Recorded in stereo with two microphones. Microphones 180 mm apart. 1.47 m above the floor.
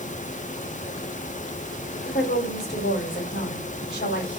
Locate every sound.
2.0 s a woman speaking: 75° left (ahead or behind), 2.5 m